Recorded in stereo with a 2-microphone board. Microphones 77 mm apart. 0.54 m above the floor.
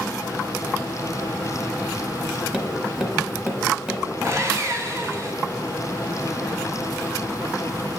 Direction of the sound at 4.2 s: 35° right (ahead or behind).